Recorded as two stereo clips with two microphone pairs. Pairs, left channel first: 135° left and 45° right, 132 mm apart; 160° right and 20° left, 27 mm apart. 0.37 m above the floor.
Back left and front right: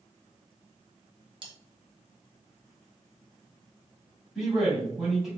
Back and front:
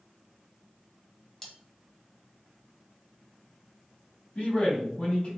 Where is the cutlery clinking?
85° right, 1.0 m.